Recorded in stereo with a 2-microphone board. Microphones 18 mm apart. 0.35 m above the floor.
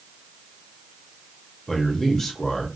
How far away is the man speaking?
About 0.9 m.